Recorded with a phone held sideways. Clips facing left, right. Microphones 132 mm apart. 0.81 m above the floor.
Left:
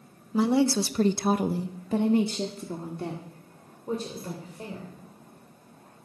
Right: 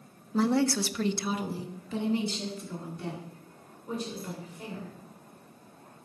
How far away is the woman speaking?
About 0.9 m.